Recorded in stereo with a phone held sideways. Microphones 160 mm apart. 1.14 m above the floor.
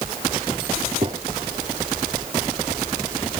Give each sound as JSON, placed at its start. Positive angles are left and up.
{"t": 1.0, "sound": "a gunshot", "side_deg": -35}